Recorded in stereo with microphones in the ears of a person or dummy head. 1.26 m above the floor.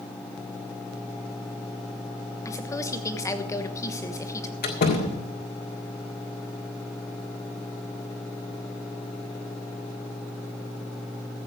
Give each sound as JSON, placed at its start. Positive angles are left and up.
{"t": 2.5, "sound": "a woman speaking", "side_deg": 20, "distance_m": 1.2}
{"t": 4.6, "sound": "a door slam", "side_deg": 45, "distance_m": 1.8}